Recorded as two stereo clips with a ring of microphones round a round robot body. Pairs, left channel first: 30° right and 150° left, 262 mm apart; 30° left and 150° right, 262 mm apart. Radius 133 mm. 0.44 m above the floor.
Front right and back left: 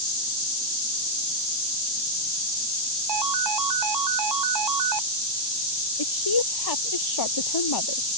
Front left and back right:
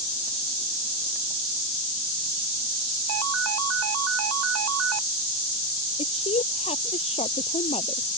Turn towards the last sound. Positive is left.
turn(degrees=-40)